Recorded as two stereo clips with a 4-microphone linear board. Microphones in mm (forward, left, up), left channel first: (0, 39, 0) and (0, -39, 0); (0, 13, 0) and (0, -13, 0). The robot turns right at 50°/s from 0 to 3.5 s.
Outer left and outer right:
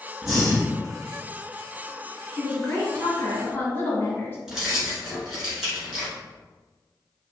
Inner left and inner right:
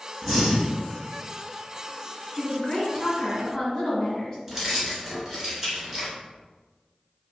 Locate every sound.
0.2 s breathing: 5° right (ahead or behind), 1.0 m; by 0.7 s 15° left (ahead or behind), 1.0 m
2.4 s a woman speaking: 75° left, 1.5 m; by 4.4 s 130° left, 1.5 m
4.5 s keys jangling: 5° right (ahead or behind), 1.6 m